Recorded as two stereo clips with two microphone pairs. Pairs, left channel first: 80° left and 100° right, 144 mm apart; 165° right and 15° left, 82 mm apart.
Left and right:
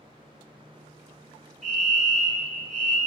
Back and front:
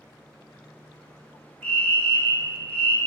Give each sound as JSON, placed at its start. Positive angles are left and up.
{"t": 1.6, "sound": "a fire alarm", "azimuth_deg": -100, "distance_m": 3.5}